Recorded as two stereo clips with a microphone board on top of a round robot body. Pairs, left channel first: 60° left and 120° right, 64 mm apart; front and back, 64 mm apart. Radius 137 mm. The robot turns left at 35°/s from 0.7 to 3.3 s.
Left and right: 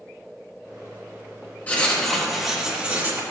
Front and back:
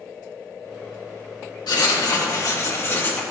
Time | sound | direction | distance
1.7 | writing | 5° right | 1.7 m